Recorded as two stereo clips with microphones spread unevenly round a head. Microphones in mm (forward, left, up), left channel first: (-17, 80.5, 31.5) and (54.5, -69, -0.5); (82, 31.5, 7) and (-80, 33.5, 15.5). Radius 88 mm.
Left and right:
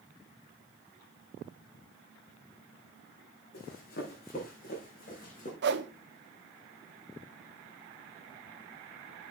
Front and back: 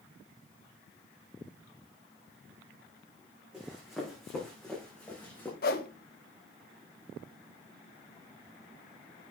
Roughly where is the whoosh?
Ahead right.